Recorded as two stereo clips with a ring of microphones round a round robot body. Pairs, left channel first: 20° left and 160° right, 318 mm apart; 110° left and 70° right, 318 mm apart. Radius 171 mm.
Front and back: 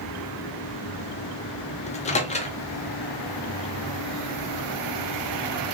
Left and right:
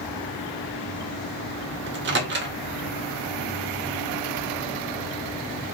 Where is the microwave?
35° right, 0.6 m.